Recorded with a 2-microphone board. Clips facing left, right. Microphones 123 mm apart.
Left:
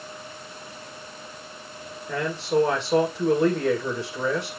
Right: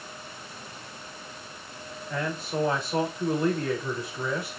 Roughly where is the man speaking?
Left.